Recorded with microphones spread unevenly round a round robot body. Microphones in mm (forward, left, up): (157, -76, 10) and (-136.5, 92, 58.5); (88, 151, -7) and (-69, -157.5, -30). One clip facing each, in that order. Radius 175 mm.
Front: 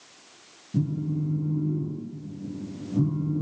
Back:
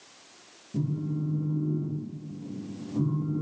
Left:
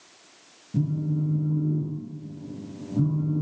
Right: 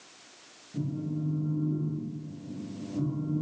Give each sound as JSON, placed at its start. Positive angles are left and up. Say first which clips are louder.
{"t": 0.7, "sound": "a phone buzzing", "louder": "front 3 dB, left 5 dB", "azimuth_deg": 35, "distance_m": 3.0}